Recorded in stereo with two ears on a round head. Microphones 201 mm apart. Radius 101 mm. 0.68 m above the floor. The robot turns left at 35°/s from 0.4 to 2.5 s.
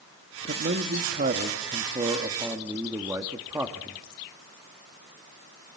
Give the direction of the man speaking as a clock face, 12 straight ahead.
3 o'clock.